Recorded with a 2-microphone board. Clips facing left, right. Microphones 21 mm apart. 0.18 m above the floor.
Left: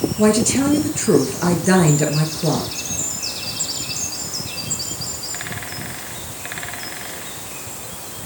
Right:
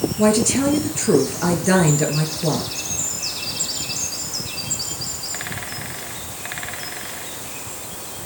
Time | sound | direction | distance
0.2 | a woman speaking | 5° left (ahead or behind) | 3.5 m